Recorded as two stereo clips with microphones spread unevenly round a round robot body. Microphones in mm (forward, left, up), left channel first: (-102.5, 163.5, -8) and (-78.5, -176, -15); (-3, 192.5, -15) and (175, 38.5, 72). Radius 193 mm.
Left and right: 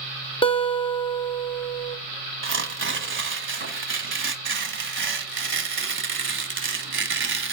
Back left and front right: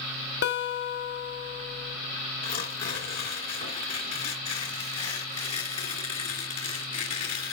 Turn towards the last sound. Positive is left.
turn(degrees=-145)